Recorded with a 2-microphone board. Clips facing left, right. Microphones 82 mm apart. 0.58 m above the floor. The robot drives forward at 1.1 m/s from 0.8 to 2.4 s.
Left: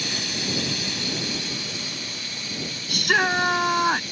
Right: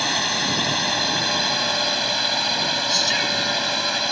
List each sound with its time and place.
0.0 s a drone: 65° right (ahead or behind); by 4.1 s 75° right (ahead or behind)
2.9 s a shout: 55° left (ahead or behind)